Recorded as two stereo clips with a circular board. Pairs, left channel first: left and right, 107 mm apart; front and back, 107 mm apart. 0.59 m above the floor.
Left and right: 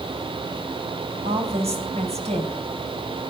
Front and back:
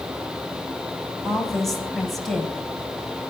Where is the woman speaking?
90° right, 3.5 m.